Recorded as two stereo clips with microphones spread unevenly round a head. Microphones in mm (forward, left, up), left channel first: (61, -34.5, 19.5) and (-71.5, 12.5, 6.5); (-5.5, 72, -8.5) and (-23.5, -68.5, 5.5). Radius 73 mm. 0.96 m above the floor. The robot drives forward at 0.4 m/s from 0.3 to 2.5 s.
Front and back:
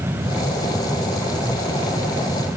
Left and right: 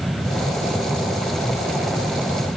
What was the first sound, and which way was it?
Only background noise.